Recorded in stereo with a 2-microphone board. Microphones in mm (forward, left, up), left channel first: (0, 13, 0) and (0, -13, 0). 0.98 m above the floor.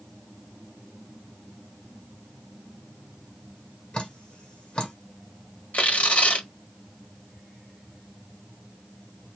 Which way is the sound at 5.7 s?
55° left (ahead or behind).